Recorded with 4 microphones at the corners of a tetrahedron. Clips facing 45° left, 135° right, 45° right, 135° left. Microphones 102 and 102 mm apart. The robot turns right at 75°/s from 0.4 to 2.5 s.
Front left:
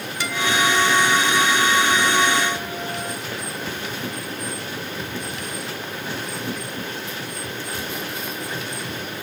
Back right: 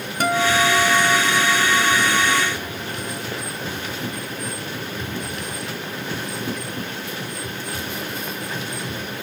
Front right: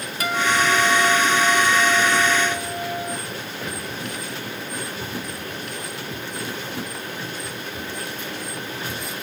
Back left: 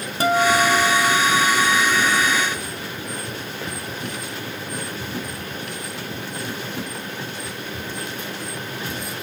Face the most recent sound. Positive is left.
turn(degrees=-10)